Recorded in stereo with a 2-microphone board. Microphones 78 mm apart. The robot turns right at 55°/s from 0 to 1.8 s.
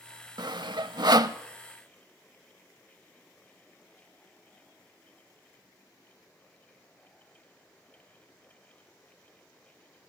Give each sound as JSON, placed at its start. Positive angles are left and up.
{"t": 0.4, "sound": "sawing", "side_deg": -60, "distance_m": 0.7}